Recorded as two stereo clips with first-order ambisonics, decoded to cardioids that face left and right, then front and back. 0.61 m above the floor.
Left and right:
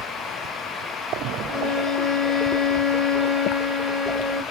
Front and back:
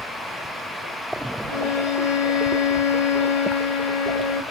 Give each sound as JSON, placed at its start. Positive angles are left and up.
{"t": 1.5, "sound": "a violin", "azimuth_deg": -5, "distance_m": 0.5}